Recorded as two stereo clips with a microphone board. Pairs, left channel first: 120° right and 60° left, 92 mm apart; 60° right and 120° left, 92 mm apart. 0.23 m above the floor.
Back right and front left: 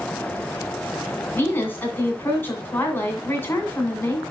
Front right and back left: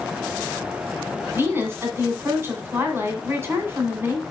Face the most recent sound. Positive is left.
turn(degrees=180)